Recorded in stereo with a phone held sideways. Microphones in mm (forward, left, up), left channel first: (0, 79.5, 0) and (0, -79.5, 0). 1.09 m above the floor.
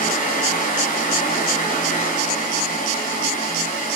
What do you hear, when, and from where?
0.0 s a fan: 55° left (ahead or behind), 0.9 m